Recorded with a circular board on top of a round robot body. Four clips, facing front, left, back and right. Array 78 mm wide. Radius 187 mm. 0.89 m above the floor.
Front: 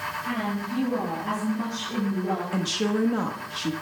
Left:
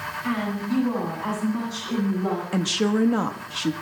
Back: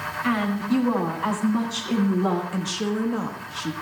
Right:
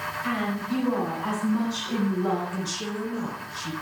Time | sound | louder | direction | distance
0.2 | a woman speaking | left 2 dB, back 8 dB | 170° left | 8.5 m
2.5 | a woman speaking | left 9 dB, front 1 dB | 85° left | 1.5 m